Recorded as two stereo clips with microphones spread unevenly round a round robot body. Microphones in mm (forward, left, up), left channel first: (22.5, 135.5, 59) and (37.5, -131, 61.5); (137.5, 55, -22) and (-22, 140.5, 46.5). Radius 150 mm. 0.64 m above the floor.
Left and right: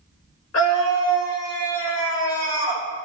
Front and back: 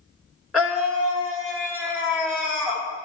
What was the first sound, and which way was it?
A scream, 60° left.